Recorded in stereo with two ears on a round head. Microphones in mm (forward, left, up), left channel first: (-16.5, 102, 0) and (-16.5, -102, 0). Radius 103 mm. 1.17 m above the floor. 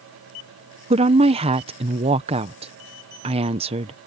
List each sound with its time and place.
0.9 s a woman speaking: 25° right (ahead or behind)